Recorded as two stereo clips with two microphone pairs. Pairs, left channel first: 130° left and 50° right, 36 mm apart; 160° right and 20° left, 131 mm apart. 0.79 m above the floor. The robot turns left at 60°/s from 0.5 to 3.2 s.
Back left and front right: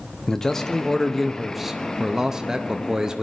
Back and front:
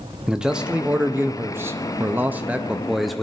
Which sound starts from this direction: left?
A man speaking, at 0.3 s.